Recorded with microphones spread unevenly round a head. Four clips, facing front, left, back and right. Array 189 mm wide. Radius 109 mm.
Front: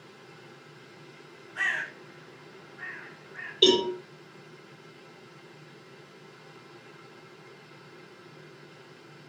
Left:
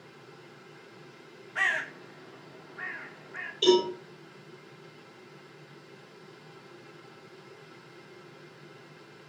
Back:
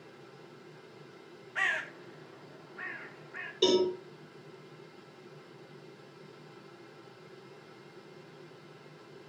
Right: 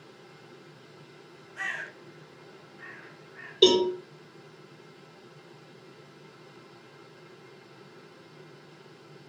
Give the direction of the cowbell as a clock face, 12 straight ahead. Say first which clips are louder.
Right 2 dB, front 3 dB; 3 o'clock.